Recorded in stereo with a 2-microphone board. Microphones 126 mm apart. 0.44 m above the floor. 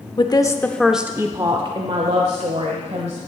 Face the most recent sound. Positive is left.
turn(degrees=-65)  # may be behind; listen again after turning